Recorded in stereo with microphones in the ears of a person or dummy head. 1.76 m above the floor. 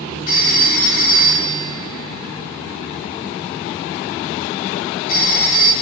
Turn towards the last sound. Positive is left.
turn(degrees=55)  # may be behind; listen again after turning